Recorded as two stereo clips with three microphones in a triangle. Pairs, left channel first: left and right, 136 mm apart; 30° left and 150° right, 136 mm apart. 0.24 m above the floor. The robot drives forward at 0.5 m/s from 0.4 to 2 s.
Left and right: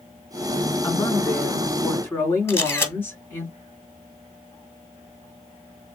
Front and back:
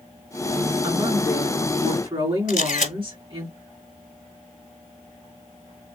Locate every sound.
0.8 s a woman speaking: 160° left, 2.5 m; by 3.5 s 165° left, 2.5 m
2.5 s a camera shutter: 20° left, 1.0 m